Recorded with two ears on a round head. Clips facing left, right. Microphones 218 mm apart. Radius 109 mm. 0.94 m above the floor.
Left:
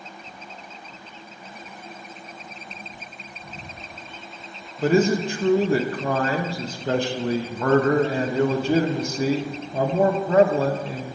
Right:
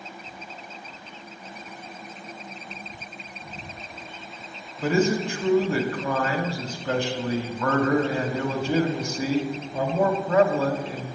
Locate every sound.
4.8 s a man speaking: 30° left (ahead or behind), 0.7 m